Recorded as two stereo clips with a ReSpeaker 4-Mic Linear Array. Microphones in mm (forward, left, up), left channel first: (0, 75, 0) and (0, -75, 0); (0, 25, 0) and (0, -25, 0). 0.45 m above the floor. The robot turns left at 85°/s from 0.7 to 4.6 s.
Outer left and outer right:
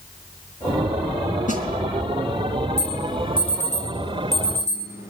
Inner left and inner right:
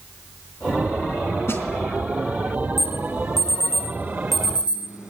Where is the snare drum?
60° left (ahead or behind), 4 m; by 1.6 s 45° left (ahead or behind), 4 m.